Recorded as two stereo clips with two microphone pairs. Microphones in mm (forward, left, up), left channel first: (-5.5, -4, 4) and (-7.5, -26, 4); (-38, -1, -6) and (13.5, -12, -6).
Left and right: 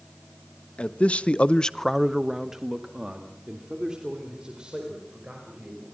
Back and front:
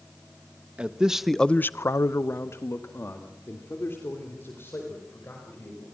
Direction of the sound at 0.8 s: 55° left.